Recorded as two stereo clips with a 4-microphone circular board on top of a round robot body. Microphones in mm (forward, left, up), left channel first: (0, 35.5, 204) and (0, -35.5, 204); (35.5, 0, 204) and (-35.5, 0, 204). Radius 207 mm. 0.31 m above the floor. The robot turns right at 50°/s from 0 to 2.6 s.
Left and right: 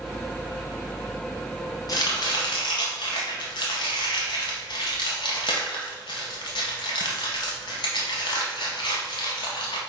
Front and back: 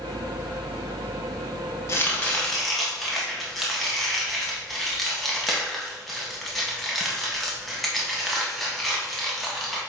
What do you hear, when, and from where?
1.9 s chopping: 55° left, 0.6 m; by 9.8 s 90° left, 0.6 m